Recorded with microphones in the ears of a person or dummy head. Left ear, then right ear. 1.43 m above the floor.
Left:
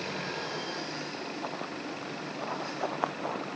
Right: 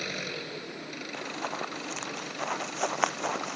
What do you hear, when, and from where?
0.0 s an engine running: 40° right (ahead or behind)
1.1 s running footsteps: 70° right (ahead or behind); by 3.6 s 75° right (ahead or behind)